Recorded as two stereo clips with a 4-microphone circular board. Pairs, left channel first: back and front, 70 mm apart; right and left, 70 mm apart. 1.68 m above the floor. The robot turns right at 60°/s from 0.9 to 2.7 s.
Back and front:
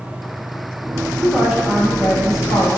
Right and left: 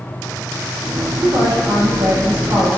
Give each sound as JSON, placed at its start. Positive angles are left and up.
{"t": 1.2, "sound": "a woman speaking", "azimuth_deg": 70, "distance_m": 1.3}